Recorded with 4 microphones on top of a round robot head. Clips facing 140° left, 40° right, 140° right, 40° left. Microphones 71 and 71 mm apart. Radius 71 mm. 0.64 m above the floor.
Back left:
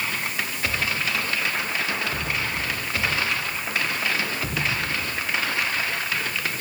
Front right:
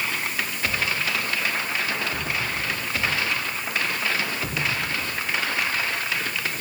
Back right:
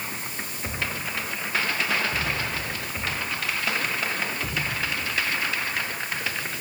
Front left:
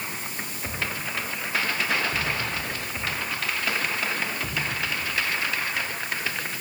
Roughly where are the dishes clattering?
No dishes clattering in this recording.